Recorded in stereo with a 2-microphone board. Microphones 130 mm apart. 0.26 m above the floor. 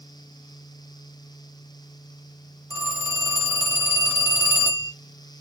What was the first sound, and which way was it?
A phone ringing, 15° right (ahead or behind).